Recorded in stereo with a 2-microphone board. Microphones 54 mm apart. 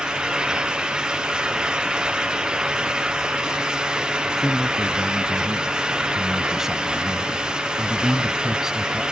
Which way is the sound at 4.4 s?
5° right (ahead or behind).